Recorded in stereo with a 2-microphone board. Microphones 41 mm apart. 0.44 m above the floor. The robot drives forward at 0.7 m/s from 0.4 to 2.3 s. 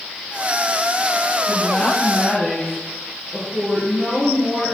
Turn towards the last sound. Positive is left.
turn(degrees=10)  # may be behind; listen again after turning